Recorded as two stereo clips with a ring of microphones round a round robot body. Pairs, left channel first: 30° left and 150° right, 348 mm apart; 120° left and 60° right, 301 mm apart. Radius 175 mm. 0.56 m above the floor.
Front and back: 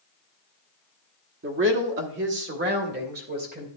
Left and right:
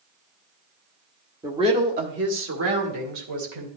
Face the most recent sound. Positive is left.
turn(degrees=-85)